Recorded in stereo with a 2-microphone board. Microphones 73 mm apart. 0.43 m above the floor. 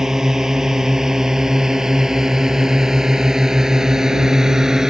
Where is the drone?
5° right (ahead or behind).